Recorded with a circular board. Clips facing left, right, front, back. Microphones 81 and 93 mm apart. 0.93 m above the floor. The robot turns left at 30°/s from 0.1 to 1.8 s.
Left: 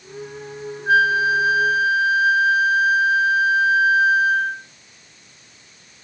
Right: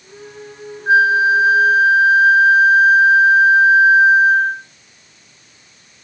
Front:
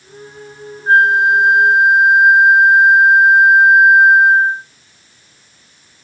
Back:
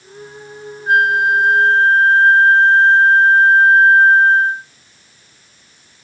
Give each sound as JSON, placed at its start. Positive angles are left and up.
{"t": 0.9, "sound": "a flute", "azimuth_deg": -40, "distance_m": 0.6}